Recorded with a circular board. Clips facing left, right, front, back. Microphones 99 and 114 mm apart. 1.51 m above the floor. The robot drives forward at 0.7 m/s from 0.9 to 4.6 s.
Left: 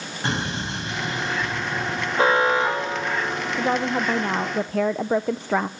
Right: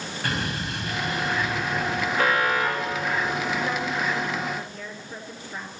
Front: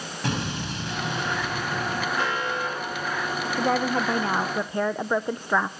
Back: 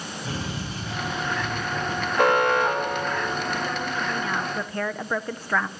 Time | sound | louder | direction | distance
0.2 | an explosion | left 3 dB, front 4 dB | 25° left | 9.5 m
2.2 | an alarm | left 5 dB, back 8 dB | 150° left | 1.5 m
3.6 | a woman speaking | left 4 dB, front 5 dB | 35° left | 1.2 m